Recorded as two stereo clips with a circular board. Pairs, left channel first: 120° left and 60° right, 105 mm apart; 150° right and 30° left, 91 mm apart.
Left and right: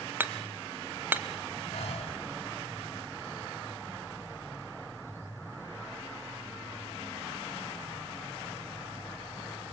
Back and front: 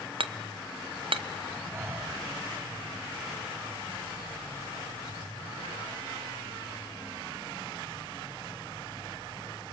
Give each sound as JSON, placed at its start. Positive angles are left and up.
{"t": 0.2, "sound": "hammering", "azimuth_deg": 10, "distance_m": 1.0}
{"t": 1.7, "sound": "breathing", "azimuth_deg": 95, "distance_m": 5.5}